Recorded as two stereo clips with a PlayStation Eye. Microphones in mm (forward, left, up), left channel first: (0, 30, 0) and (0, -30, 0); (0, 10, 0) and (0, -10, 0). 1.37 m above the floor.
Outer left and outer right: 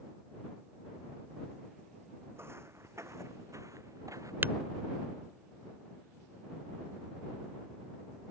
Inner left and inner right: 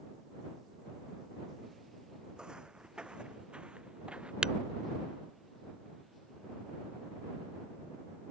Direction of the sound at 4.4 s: 35° right (ahead or behind).